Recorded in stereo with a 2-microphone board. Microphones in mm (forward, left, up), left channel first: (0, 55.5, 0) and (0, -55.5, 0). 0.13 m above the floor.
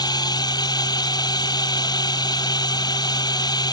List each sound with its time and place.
0.0 s a drone: 40° left (ahead or behind)